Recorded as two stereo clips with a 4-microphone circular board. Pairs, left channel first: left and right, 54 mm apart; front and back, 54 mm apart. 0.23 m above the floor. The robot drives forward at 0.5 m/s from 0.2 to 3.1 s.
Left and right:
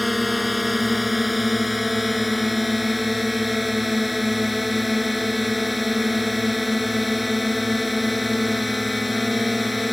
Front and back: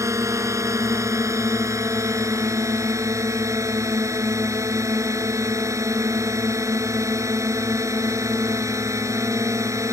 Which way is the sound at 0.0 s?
Straight behind.